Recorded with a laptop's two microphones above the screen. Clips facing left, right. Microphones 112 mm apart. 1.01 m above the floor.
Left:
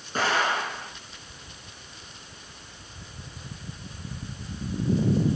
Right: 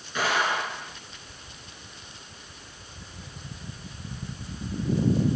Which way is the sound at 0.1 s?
40° left (ahead or behind).